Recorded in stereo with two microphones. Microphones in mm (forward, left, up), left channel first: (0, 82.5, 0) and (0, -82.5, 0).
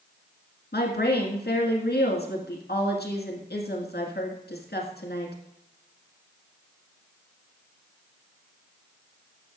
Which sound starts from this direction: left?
A woman speaking, at 0.7 s.